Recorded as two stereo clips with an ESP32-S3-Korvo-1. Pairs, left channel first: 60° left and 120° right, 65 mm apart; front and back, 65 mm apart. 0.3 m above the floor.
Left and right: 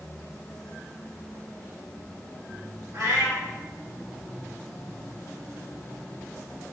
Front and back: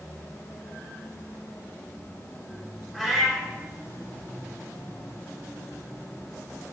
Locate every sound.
2.9 s a cat meowing: 90° right, 1.6 m